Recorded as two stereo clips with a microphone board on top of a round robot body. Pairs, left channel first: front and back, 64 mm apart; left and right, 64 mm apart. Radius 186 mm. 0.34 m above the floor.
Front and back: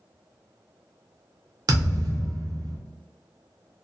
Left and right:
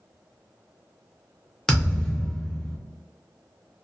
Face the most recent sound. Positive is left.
turn(degrees=170)